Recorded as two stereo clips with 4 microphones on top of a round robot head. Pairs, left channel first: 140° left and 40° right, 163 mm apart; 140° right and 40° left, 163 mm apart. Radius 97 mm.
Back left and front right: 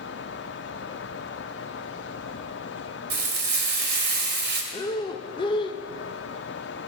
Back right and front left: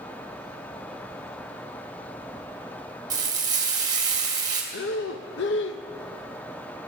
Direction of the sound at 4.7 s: 155° right.